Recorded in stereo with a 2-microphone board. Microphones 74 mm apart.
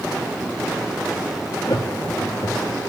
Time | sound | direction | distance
1.7 | laughter | 65° left (ahead or behind) | 3.5 m